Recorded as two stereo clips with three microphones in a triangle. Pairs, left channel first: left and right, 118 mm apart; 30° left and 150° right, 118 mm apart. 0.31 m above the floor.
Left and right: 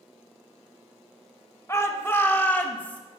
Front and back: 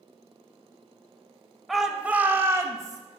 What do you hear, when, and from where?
1.7 s a shout: 120° left, 0.9 m; by 3.0 s 165° left, 1.3 m